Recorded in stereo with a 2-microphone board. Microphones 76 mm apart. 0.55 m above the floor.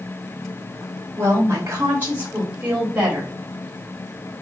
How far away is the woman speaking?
About 2.5 m.